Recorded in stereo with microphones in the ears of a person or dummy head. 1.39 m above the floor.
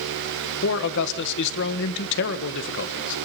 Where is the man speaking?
60° left (ahead or behind), 1.5 m.